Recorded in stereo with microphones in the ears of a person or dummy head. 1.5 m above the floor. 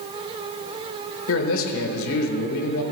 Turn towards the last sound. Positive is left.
turn(degrees=80)